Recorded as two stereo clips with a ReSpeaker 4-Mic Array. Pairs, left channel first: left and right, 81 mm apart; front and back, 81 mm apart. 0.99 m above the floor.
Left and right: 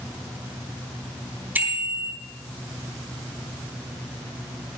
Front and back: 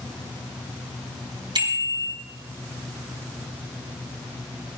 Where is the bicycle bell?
155° right, 5 m.